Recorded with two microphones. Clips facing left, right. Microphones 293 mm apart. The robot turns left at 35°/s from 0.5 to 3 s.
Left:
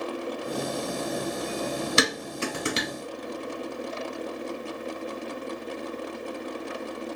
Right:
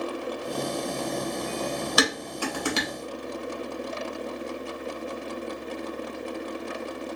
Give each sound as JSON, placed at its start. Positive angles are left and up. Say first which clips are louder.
{"t": 2.0, "sound": "dishes clattering", "louder": "even", "side_deg": 30, "distance_m": 0.7}